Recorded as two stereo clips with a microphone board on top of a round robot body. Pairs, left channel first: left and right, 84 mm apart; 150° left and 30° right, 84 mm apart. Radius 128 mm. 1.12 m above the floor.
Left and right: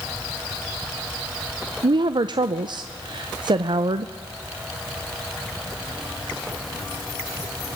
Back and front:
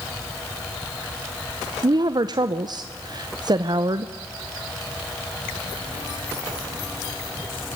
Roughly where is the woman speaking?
Ahead right.